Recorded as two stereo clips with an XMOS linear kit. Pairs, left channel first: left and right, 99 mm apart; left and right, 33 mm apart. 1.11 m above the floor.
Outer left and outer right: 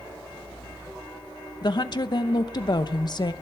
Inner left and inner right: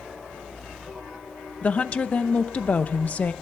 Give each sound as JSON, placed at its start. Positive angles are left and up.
{"t": 1.6, "sound": "a woman speaking", "side_deg": 45, "distance_m": 0.8}